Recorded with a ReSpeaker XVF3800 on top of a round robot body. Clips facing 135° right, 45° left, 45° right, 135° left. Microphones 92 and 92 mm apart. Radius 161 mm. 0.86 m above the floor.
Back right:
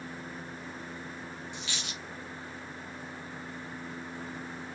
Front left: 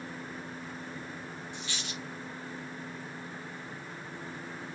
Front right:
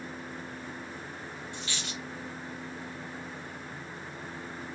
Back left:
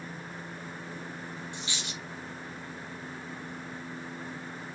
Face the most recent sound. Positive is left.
turn(degrees=-155)